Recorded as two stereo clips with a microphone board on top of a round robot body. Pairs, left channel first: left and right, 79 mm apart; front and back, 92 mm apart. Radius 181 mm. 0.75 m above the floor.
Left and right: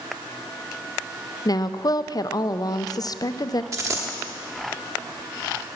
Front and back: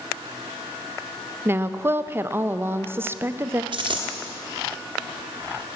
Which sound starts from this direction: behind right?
A dropped coin, at 3.7 s.